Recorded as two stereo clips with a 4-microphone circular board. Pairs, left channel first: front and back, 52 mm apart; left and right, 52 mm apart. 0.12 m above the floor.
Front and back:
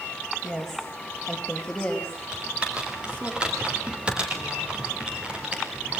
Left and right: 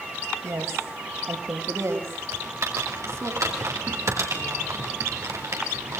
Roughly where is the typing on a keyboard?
Right.